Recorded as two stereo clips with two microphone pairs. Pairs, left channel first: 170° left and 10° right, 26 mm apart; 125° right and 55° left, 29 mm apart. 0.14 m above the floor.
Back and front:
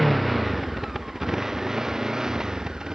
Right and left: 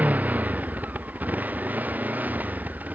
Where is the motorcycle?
75° left; by 3.0 s 50° left.